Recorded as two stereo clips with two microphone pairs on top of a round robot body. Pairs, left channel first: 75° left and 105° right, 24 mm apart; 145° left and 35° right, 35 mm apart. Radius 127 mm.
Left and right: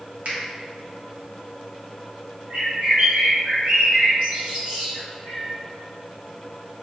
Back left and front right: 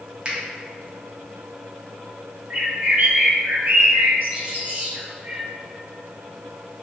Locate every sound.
0.2 s a finger snap: 90° right, 1.0 m
2.5 s a bird: 75° right, 1.3 m